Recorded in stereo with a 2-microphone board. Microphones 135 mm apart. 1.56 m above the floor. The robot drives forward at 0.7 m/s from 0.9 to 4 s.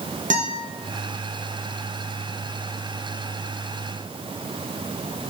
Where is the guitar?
70° right (ahead or behind), 1.3 m.